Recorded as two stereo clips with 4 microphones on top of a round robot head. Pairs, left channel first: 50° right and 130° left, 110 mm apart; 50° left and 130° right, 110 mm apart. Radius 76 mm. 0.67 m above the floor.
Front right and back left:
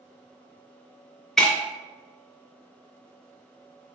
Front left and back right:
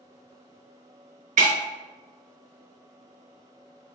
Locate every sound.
1.4 s breaking glass: 135° right, 0.7 m